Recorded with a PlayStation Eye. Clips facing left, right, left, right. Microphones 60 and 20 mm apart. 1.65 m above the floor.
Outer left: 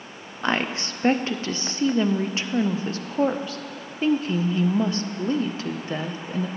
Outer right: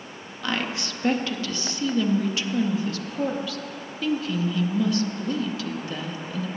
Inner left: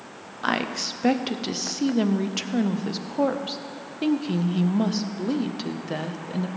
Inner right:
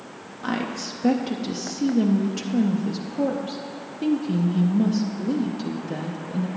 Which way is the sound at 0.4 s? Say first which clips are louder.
Outer left 3 dB, inner left 2 dB; 35° left (ahead or behind).